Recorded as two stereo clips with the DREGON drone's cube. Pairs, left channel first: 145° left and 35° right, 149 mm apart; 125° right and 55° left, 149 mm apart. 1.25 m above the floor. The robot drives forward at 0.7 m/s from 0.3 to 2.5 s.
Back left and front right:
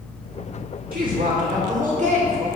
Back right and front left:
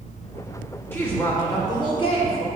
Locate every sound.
0.9 s a woman speaking: 50° right, 2 m; by 2.5 s 80° right, 1.6 m